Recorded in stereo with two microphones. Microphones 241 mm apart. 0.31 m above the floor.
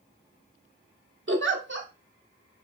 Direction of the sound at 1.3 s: 50° right (ahead or behind).